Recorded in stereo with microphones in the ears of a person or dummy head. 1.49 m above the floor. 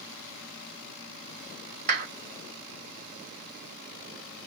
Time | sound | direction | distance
1.9 | a clap | 40° right (ahead or behind) | 1.1 m